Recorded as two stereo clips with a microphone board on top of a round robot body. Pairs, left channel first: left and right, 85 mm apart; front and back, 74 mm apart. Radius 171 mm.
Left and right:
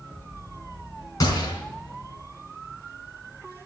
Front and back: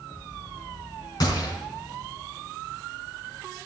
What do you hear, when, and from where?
1.2 s a gunshot: 40° left, 4 m